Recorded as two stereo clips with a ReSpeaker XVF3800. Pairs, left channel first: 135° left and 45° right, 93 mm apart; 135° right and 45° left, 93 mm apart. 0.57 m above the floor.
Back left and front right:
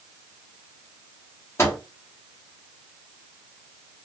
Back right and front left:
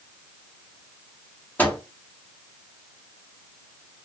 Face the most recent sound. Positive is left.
turn(degrees=170)